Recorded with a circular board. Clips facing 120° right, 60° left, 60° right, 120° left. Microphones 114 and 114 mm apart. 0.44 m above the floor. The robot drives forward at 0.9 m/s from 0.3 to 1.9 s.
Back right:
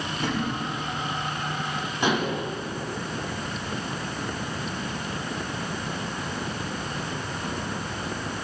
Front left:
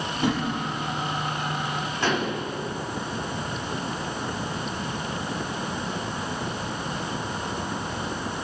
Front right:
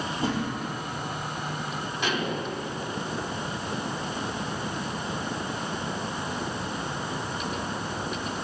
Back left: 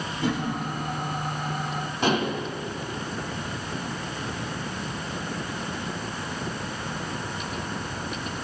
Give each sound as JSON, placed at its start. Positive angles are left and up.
{"t": 0.2, "sound": "a whoosh", "azimuth_deg": -10, "distance_m": 4.0}
{"t": 2.0, "sound": "dishes clattering", "azimuth_deg": 170, "distance_m": 2.0}